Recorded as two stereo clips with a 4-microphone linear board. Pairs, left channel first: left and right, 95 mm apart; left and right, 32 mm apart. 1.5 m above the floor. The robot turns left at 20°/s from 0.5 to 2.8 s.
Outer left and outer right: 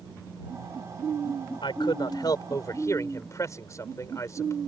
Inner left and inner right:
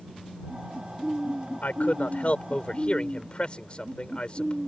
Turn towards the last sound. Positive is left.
turn(degrees=35)  # may be behind; listen again after turning